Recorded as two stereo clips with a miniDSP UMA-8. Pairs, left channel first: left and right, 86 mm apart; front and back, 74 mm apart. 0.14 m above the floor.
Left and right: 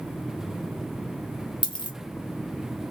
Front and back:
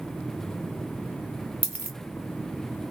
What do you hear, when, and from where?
1.6 s a dropped coin: 115° left, 0.8 m